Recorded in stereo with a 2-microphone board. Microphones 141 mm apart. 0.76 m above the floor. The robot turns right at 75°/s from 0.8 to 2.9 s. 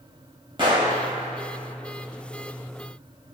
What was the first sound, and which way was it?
A gunshot, 35° right (ahead or behind).